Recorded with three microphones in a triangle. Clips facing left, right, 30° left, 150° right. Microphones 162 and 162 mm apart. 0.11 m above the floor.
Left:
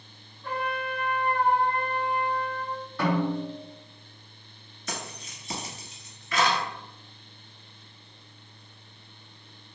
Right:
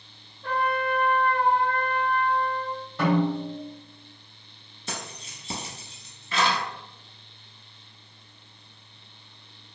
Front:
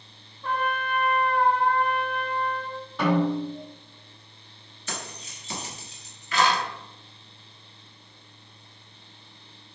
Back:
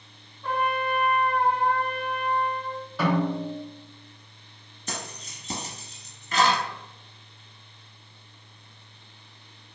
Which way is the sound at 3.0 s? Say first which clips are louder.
Right 3 dB, front 2 dB; 65° right.